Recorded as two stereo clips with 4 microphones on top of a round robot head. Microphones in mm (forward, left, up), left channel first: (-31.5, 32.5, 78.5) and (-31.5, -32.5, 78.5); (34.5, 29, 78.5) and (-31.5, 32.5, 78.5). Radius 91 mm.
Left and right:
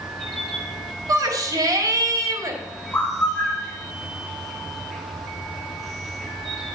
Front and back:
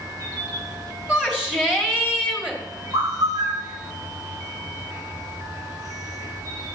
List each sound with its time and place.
0.0 s an insect: 175° left, 2 m
1.1 s a shout: 105° right, 2 m
2.9 s a bird: 160° left, 2.5 m